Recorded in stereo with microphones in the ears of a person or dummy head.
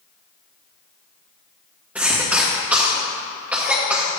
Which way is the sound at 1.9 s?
10° right (ahead or behind).